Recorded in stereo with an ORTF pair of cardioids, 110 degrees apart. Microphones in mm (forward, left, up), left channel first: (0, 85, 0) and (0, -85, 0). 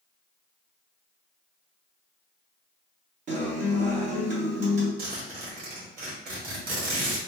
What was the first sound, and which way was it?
A guitar, 45° right.